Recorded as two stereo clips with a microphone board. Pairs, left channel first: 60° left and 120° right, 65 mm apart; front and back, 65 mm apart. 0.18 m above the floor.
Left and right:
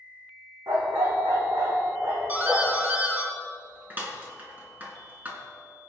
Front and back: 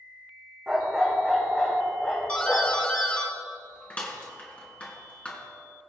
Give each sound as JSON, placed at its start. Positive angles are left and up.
{"t": 0.7, "sound": "a dog barking", "azimuth_deg": -100, "distance_m": 3.5}
{"t": 2.3, "sound": "a doorbell", "azimuth_deg": -65, "distance_m": 3.5}